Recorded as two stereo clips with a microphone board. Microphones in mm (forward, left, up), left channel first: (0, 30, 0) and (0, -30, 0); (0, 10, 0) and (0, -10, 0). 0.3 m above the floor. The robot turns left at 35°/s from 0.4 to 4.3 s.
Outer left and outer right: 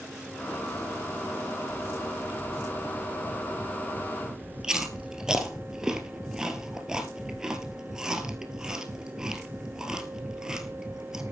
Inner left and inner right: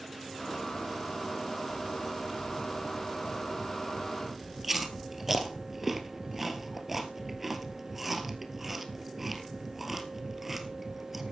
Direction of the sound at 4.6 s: 10° right (ahead or behind).